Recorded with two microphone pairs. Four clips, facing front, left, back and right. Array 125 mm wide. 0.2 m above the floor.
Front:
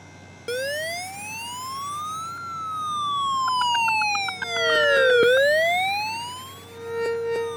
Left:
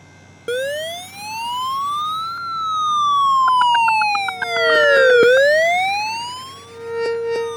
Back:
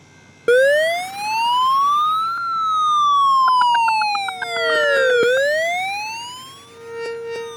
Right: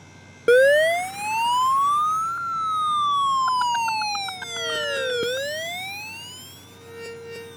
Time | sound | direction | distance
0.5 | a siren | 150° right | ?